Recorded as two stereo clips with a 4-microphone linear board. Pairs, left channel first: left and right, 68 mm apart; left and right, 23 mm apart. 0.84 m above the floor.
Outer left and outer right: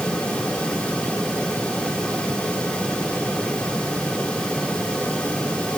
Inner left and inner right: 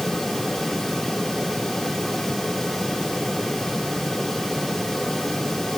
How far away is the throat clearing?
I don't hear throat clearing.